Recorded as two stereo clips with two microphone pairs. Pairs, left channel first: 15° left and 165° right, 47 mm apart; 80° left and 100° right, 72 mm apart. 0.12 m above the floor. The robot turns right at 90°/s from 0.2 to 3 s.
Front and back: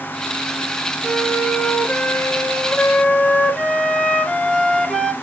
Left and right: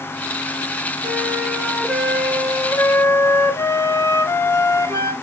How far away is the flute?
About 1.3 m.